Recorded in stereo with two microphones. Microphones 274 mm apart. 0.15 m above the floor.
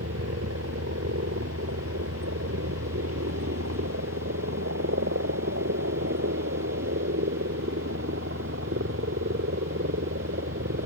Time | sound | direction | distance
0.0 | a helicopter | 60° right (ahead or behind) | ?